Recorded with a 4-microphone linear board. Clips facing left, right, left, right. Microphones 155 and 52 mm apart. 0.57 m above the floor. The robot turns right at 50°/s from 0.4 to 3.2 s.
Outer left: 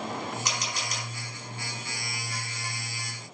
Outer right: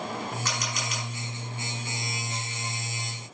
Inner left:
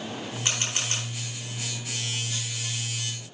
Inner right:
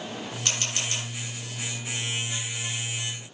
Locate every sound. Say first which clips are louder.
0.5 s a camera shutter: outer right 1 dB, inner left 1 dB; 15° left (ahead or behind), 8.5 m; by 1.1 s 45° left (ahead or behind), 8.5 m